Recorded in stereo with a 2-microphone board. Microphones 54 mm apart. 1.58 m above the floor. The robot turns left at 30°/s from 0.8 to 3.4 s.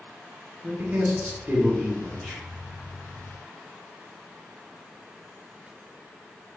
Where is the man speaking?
140° right, 1.0 m; by 2.4 s 175° left, 1.0 m.